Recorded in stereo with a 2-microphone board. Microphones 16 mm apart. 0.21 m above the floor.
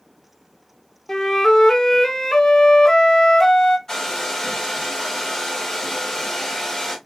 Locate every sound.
1.1 s a flute: 45° left (ahead or behind), 0.5 m
3.9 s a hair dryer: 45° left (ahead or behind), 2 m